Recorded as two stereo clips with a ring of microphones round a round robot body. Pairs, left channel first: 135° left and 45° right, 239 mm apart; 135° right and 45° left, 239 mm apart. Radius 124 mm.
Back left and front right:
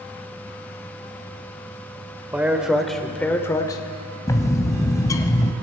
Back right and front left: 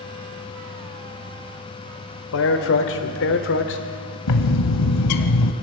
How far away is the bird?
About 1.2 m.